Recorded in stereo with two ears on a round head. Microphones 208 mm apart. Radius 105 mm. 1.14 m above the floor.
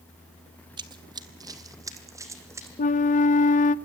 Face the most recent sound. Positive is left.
turn(degrees=35)  # may be behind; listen again after turning